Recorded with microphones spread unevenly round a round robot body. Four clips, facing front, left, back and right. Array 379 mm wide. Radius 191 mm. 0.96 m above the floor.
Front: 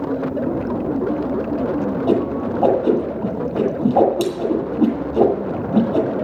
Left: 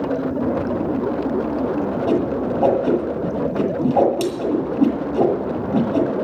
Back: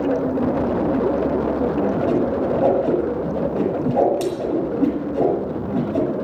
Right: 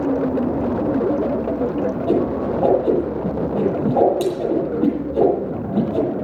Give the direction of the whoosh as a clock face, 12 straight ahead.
11 o'clock.